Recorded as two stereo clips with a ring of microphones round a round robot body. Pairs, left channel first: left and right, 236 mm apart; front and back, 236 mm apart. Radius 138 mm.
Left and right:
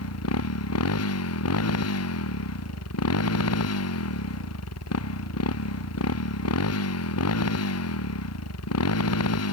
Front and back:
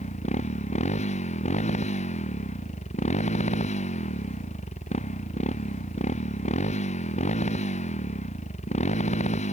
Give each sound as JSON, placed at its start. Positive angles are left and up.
{"t": 0.0, "sound": "a motorcycle", "azimuth_deg": 65}